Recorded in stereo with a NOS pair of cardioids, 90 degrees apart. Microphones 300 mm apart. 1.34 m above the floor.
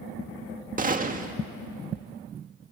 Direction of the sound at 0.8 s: 30° right.